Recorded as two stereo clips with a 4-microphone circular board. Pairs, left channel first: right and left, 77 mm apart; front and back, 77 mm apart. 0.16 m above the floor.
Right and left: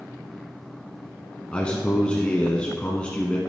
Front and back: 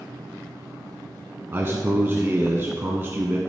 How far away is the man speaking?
About 1.2 m.